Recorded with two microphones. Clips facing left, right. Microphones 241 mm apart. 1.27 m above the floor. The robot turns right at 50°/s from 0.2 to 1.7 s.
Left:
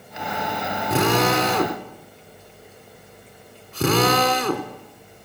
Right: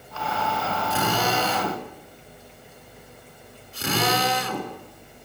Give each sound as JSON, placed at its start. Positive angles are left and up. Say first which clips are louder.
{"t": 0.9, "sound": "a drill", "louder": "left 7 dB", "side_deg": 70, "distance_m": 4.0}